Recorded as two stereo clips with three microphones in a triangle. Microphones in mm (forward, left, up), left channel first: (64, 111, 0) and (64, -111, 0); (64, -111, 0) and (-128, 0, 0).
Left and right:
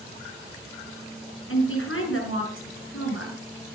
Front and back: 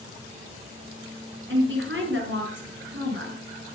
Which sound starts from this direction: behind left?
A woman speaking, at 1.5 s.